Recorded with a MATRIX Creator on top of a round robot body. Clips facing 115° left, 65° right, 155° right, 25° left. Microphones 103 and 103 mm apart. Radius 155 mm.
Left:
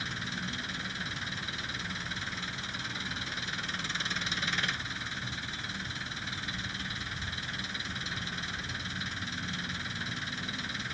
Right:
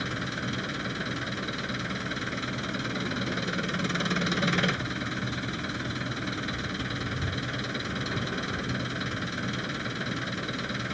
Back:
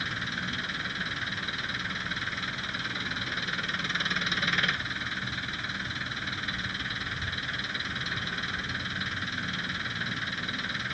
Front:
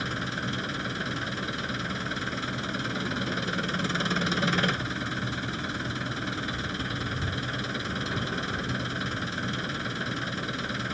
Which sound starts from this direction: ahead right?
An engine running, at 0.0 s.